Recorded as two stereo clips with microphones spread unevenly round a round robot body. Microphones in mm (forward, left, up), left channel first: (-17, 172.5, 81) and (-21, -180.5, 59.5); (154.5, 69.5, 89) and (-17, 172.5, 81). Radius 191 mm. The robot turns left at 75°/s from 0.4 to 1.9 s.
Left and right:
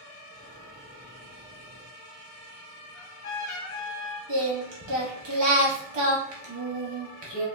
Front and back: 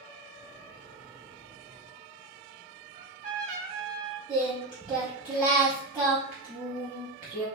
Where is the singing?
125° right, 0.6 m.